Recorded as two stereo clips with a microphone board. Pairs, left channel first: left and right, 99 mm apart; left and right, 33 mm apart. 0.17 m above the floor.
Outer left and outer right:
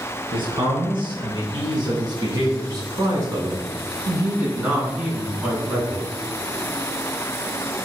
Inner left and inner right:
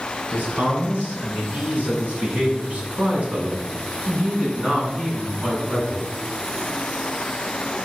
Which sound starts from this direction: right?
A man speaking, at 0.3 s.